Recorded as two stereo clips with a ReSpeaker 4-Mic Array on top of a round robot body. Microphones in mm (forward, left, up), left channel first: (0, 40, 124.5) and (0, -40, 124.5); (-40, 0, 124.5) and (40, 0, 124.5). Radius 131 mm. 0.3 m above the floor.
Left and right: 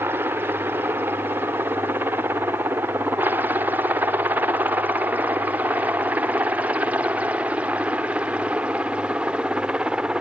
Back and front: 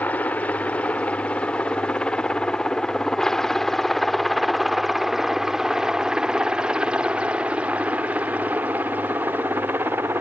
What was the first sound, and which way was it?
A helicopter, 125° right.